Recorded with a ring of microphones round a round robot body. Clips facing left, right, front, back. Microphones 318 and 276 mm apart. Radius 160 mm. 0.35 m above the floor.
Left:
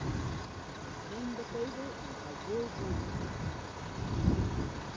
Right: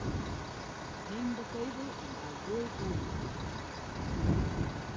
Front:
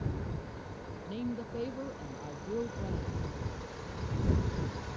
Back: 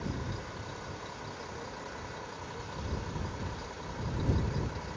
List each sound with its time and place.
1.1 s a woman speaking: 20° right; by 3.2 s 10° right